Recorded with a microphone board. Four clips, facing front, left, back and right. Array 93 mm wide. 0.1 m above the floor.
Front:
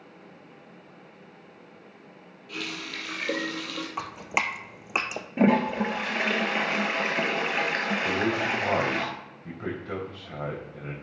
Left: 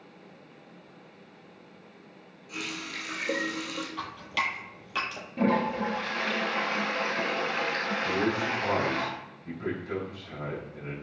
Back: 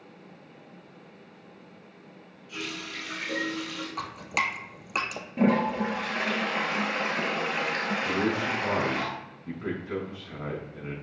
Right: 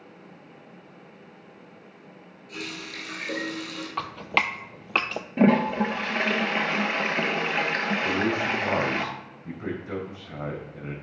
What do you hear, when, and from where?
2.5 s a running tap: 20° left, 2.0 m
4.0 s dripping: 65° right, 0.6 m
5.4 s a toilet flushing: 55° right, 1.0 m
8.1 s a man speaking: 20° right, 3.5 m